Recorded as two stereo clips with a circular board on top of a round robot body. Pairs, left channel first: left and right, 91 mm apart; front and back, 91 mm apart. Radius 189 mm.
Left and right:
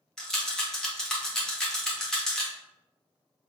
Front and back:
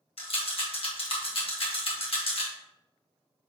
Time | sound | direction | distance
0.2 | a rattle | 5° left | 2 m